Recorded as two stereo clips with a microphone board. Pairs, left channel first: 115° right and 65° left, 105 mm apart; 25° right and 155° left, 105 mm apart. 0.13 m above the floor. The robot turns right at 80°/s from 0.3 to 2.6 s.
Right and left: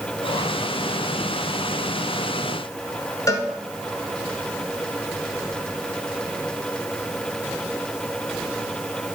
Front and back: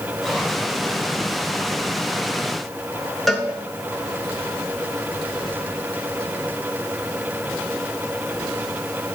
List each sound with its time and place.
3.3 s a cowbell: 110° right, 1.0 m